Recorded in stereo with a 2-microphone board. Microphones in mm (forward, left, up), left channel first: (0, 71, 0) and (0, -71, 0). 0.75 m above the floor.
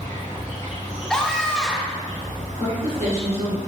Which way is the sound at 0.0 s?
60° right (ahead or behind).